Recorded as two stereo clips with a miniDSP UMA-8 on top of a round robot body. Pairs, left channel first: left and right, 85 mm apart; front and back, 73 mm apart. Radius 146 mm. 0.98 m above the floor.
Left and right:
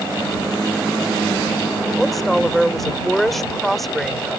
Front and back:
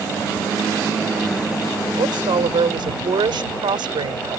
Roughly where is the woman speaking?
Behind.